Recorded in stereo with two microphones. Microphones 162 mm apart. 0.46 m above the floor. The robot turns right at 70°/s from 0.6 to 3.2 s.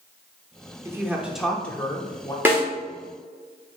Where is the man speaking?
15° right (ahead or behind), 0.7 m; by 2.4 s 25° left (ahead or behind), 0.7 m.